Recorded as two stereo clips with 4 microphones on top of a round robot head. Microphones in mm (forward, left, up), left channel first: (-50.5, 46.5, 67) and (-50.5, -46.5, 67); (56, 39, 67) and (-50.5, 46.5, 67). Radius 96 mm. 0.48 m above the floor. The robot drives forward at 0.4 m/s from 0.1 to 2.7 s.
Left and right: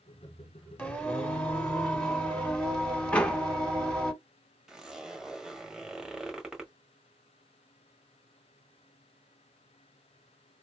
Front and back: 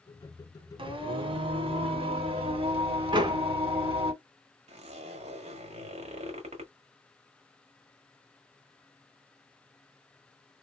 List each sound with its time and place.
0.8 s singing: 165° left, 1.8 m; by 4.1 s 170° left, 2.5 m
3.1 s a door slam: 160° left, 1.2 m
4.7 s a zipper: 175° right, 1.4 m